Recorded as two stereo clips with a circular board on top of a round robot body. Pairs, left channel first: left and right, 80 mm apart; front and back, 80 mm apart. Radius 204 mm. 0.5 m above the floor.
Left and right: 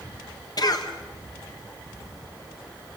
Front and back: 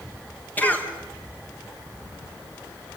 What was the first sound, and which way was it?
A cough, 65° left.